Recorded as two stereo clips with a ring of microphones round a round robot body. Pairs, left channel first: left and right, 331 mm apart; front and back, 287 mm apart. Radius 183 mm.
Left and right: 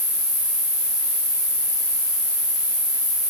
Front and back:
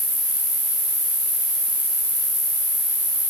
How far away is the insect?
About 3.5 m.